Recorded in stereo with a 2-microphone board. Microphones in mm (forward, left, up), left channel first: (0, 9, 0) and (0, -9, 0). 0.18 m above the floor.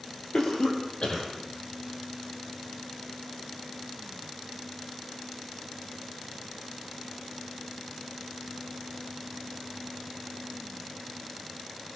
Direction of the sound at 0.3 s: 60° left (ahead or behind).